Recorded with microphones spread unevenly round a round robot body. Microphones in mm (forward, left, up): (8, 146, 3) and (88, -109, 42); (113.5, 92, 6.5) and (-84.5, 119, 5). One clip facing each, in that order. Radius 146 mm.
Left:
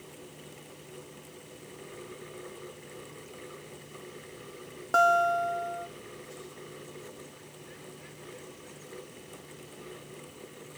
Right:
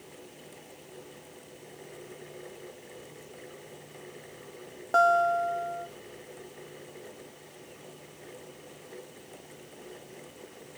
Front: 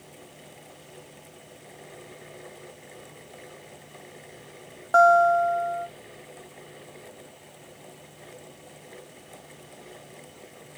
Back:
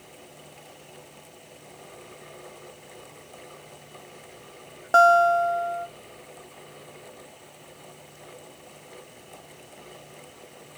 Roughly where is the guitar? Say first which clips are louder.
Right 1 dB, even; behind left.